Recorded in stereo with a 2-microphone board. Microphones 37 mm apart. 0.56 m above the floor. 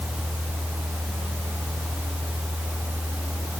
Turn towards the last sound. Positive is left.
No sound to turn to.